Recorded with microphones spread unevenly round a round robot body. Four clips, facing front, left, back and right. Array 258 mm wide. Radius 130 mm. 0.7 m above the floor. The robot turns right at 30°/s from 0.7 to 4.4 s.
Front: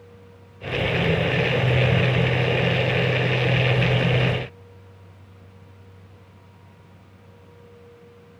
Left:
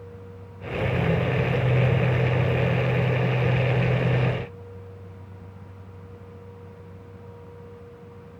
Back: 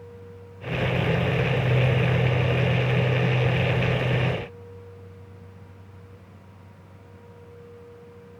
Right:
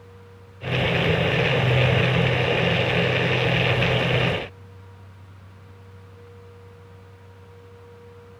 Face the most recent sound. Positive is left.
No sound to turn to.